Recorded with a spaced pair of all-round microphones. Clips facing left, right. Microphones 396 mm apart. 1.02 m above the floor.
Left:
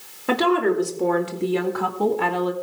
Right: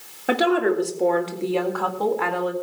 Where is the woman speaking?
5° left (ahead or behind), 2.5 m; by 2.5 s 55° left (ahead or behind), 1.9 m.